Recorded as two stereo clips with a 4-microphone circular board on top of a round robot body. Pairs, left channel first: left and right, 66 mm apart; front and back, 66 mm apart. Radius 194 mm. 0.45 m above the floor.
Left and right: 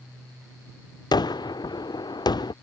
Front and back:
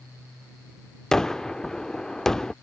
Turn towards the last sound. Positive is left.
turn(degrees=85)